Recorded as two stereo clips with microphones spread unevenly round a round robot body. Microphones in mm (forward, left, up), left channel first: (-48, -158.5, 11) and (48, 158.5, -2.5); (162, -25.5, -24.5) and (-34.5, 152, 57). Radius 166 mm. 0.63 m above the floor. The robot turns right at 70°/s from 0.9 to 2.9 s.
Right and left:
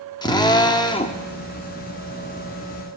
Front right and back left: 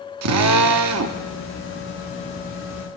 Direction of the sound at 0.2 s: 175° left.